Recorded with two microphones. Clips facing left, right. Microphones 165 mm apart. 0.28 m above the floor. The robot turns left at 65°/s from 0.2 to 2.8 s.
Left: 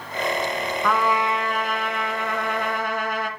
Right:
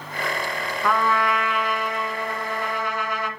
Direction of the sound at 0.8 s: Straight behind.